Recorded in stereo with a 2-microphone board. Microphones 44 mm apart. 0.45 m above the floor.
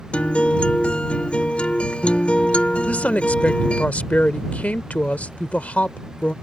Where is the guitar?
30° left (ahead or behind).